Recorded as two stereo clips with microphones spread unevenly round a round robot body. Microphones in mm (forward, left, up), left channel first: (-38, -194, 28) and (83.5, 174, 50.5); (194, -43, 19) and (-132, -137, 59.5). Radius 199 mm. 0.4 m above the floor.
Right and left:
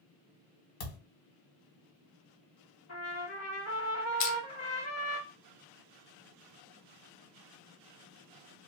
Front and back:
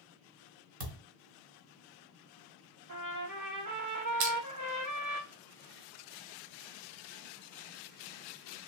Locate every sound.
0.8 s a thud: 115° right, 1.5 m
2.9 s a trumpet: 145° right, 1.9 m
4.2 s crushing: 145° right, 1.0 m